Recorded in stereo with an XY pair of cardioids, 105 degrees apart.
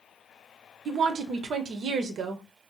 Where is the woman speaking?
60° right, 0.7 m.